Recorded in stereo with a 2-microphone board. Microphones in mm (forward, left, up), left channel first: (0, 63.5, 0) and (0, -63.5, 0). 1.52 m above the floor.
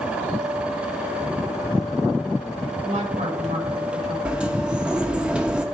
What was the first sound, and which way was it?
A woman speaking, 60° right (ahead or behind).